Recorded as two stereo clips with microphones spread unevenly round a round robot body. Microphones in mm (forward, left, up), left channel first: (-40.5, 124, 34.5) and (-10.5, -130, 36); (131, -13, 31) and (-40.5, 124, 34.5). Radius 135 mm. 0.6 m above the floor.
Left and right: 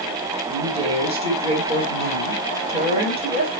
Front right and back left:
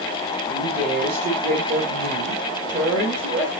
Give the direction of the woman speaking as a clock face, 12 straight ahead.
5 o'clock.